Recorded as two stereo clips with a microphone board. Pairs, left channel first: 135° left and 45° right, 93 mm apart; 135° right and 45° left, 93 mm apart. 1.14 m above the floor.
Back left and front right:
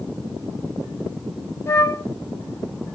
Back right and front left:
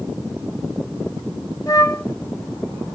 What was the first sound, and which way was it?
A flute, 170° right.